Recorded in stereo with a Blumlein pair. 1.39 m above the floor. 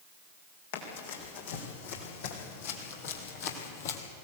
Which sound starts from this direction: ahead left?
Running footsteps, at 0.7 s.